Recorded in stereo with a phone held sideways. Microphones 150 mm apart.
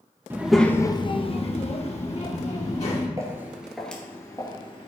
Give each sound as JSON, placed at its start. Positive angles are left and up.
{"t": 0.3, "sound": "a child speaking", "side_deg": -15, "distance_m": 0.6}
{"t": 3.2, "sound": "footsteps", "side_deg": -20, "distance_m": 1.7}